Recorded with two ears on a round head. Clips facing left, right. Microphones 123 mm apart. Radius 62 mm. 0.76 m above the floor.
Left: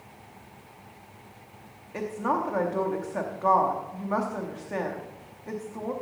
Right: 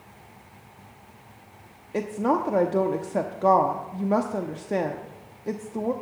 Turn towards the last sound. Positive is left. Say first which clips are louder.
# right 4 dB
turn(degrees=-35)  # may be behind; listen again after turning